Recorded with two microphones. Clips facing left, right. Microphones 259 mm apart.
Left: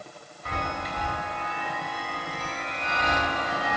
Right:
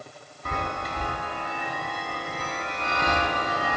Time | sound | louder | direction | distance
0.5 | a chime | right 1 dB | 50° right (ahead or behind) | 0.5 m